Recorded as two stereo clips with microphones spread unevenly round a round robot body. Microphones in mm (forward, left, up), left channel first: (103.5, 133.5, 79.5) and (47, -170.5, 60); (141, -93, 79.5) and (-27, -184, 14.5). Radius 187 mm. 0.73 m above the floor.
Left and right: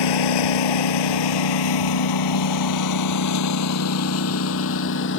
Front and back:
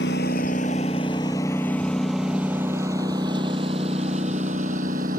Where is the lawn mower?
90° left; by 5.2 s 140° left.